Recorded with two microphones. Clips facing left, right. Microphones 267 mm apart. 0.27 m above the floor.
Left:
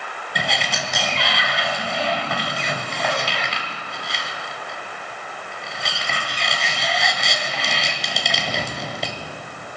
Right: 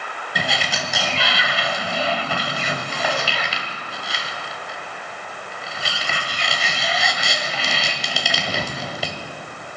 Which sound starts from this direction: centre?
A sliding door, at 0.3 s.